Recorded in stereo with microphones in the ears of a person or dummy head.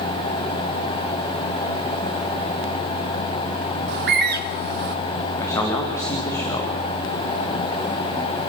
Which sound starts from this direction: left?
A man speaking, at 5.4 s.